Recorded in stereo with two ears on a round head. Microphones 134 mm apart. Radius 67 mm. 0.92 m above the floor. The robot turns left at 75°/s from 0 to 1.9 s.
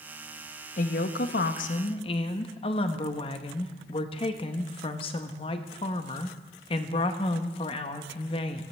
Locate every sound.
0.8 s a woman speaking: 125° left, 0.7 m; by 8.6 s 35° left, 0.7 m